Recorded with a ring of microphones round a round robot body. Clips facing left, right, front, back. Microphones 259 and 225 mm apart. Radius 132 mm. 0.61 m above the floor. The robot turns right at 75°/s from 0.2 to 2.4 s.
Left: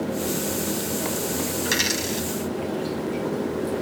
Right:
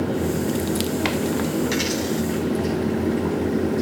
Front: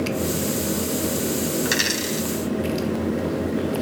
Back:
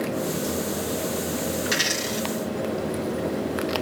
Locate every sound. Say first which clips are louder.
1.6 s a dropped coin: right 5 dB, front 3 dB; 20° left, 1.9 m; by 2.3 s 70° left, 1.9 m